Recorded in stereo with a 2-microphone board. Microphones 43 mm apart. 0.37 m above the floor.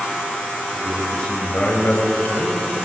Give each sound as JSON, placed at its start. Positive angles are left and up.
{"t": 0.7, "sound": "a man speaking", "side_deg": 10, "distance_m": 1.7}